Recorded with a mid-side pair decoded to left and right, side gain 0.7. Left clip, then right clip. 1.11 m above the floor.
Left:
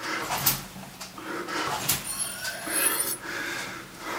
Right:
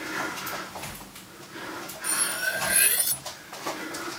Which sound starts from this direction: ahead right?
Cutlery clinking, at 2.0 s.